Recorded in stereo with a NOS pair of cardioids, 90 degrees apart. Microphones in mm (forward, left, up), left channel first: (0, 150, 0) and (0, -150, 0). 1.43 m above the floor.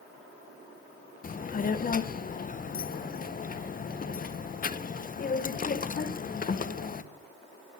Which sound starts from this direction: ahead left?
A child speaking, at 1.2 s.